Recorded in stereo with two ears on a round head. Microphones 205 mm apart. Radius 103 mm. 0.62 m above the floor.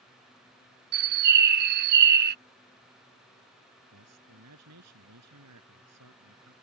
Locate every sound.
0.9 s a bird: 45° right (ahead or behind)
3.9 s a man speaking: 85° right